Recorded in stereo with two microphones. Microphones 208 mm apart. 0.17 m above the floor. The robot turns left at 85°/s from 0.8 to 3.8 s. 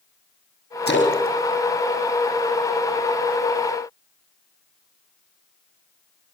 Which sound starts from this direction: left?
A splash, at 0.9 s.